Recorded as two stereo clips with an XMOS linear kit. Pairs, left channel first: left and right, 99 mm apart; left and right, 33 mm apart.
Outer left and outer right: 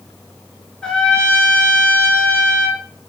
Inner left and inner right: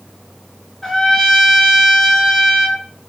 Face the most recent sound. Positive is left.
turn(degrees=10)  # may be behind; listen again after turning